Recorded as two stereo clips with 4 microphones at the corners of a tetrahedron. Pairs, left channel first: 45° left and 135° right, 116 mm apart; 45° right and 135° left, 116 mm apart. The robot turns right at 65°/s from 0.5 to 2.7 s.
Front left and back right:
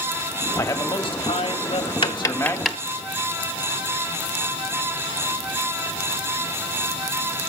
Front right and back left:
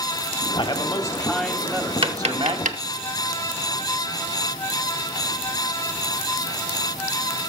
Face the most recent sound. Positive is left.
turn(degrees=135)